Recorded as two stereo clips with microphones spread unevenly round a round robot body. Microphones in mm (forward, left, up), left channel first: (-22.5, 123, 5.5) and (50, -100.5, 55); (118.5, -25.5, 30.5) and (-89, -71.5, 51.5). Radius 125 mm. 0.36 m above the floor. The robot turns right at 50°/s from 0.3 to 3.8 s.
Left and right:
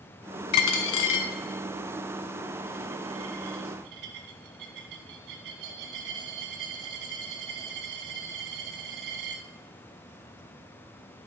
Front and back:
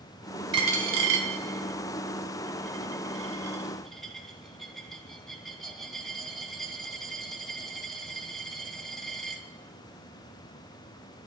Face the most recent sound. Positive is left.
turn(degrees=-75)